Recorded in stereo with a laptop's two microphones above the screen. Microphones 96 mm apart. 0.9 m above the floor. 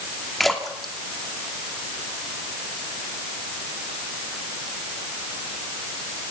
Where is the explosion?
I don't hear an explosion.